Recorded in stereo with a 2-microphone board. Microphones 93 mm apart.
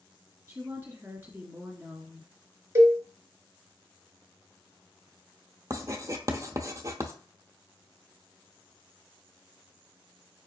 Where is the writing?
35° right (ahead or behind), 0.6 m.